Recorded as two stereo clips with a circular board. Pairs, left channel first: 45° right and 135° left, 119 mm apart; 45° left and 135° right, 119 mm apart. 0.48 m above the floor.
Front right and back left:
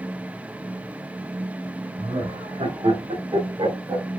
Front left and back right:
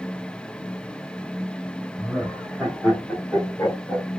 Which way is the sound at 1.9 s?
140° left.